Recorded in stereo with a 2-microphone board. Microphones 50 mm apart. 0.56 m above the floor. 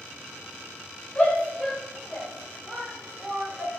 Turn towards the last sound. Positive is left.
turn(degrees=-35)  # may be behind; listen again after turning